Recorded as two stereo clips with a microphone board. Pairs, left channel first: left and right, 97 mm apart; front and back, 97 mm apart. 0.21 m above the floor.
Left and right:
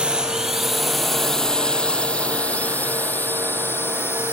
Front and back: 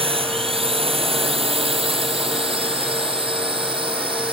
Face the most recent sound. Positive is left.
turn(degrees=155)